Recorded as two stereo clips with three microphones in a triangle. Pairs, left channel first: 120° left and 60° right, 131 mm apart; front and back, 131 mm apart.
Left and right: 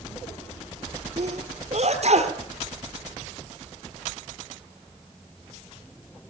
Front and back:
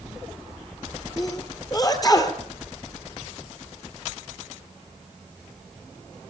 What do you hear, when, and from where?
1.2 s a sneeze: 55° right, 3 m